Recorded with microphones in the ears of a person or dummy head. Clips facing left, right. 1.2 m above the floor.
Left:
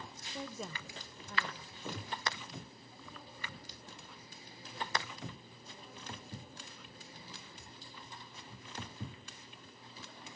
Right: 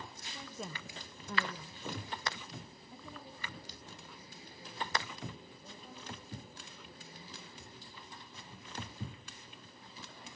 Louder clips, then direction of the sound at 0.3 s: Left 3 dB; 20° left (ahead or behind).